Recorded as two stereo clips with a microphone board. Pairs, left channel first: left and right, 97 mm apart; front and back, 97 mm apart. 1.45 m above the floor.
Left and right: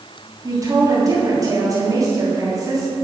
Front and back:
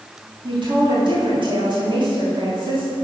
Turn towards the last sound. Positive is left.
turn(degrees=-145)